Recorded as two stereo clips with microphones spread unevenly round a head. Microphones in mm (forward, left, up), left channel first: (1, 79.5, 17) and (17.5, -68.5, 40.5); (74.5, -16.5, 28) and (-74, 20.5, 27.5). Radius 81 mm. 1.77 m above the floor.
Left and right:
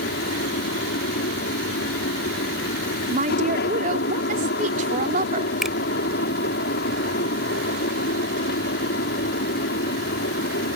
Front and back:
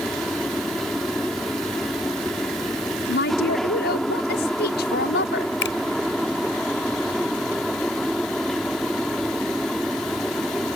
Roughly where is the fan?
Left.